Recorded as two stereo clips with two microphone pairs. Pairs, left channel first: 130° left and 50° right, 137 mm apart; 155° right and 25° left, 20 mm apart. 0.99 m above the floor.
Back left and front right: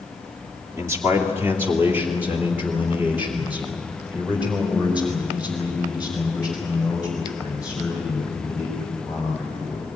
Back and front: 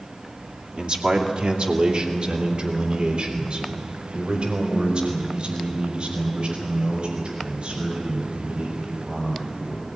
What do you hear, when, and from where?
0.8 s a man speaking: 20° left, 2 m; by 9.9 s 35° left, 7.5 m